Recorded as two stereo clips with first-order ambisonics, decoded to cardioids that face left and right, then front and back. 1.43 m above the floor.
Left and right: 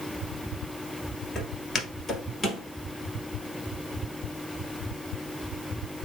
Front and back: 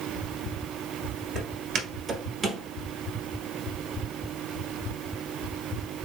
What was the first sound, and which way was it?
Footsteps, 155° left.